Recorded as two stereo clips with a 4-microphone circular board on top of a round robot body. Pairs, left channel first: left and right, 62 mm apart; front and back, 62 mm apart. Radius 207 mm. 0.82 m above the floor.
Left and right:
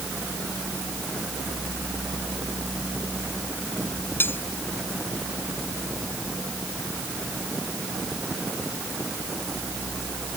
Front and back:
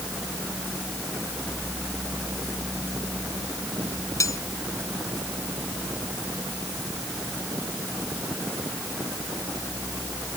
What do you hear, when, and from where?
4.2 s cutlery clinking: 35° left